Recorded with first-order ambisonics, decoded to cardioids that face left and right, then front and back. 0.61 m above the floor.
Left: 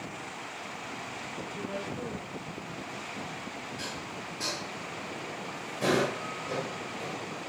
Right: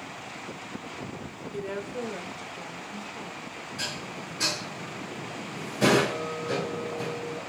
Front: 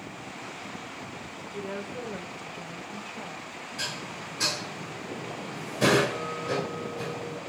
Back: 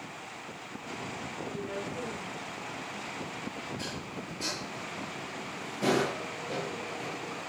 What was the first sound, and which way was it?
A woman speaking, 70° right.